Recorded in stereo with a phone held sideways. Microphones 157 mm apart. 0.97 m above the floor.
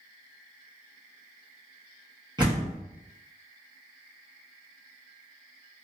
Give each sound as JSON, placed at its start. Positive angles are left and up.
{"t": 2.4, "sound": "a door slam", "side_deg": -25, "distance_m": 1.0}